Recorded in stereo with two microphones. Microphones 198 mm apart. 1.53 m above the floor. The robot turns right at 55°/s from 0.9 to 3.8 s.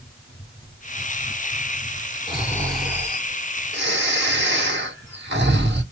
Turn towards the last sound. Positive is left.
turn(degrees=-125)